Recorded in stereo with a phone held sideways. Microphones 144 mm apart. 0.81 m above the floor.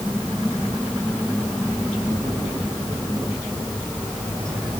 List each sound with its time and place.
0.0 s a machine running: 5° left (ahead or behind)